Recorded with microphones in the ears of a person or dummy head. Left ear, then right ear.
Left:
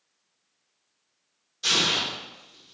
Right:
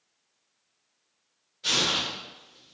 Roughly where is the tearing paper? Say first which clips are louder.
Left 2 dB; left.